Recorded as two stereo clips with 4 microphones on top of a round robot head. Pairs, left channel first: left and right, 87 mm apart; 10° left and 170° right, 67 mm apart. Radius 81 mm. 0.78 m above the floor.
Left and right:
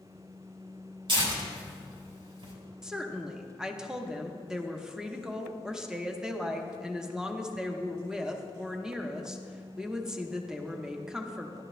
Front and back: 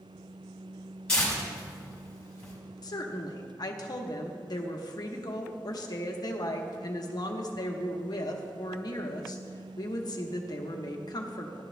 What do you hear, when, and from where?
1.1 s tearing paper: 70° right, 4.5 m
2.8 s a woman speaking: 10° right, 1.0 m